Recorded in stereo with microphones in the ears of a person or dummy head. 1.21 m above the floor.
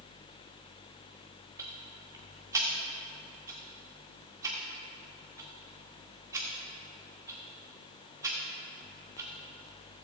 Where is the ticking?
25° right (ahead or behind), 1.4 m.